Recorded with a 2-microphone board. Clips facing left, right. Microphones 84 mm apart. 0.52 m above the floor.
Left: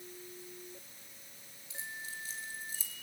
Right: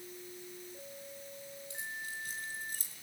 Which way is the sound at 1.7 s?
60° right (ahead or behind).